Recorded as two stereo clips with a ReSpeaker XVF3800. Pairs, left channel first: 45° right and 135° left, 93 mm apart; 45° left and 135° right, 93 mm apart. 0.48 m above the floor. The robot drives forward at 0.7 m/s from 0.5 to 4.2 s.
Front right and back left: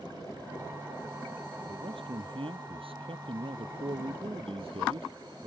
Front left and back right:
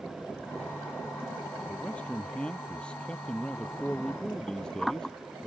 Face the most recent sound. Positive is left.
turn(degrees=125)